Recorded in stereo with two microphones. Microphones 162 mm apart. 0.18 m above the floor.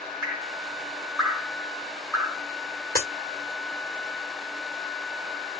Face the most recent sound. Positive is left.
turn(degrees=-75)  # may be behind; listen again after turning